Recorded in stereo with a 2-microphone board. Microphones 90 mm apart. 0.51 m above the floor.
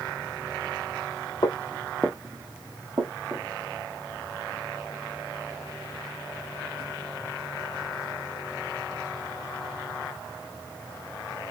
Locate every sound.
1.4 s footsteps: 50° left (ahead or behind), 0.7 m; by 3.5 s 60° right (ahead or behind), 1.5 m